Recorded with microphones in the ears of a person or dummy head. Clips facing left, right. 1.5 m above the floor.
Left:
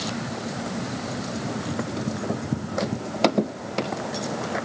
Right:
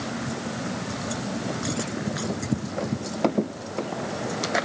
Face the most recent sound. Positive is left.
No sound to turn to.